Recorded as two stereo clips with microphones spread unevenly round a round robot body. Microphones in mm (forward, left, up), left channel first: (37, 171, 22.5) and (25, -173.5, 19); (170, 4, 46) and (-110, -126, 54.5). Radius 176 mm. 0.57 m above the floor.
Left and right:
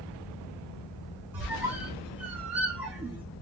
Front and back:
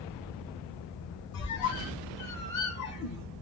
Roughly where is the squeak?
Ahead.